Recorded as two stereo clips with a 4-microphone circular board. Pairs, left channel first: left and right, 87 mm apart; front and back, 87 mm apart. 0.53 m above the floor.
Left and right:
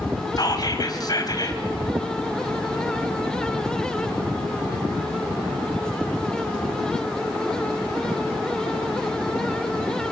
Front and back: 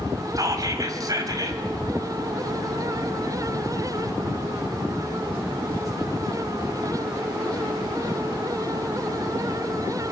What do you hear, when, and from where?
0.4 s whispering: 130° left, 4 m